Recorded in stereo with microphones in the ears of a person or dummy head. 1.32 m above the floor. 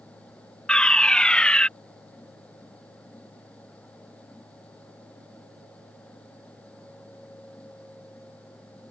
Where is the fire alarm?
5° left (ahead or behind).